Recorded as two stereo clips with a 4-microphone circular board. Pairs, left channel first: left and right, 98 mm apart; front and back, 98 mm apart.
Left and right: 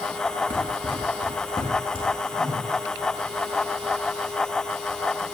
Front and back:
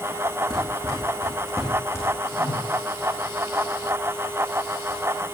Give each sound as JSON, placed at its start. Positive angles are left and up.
{"t": 0.5, "sound": "running footsteps", "azimuth_deg": 55, "distance_m": 4.0}
{"t": 2.3, "sound": "a whoosh", "azimuth_deg": -35, "distance_m": 5.5}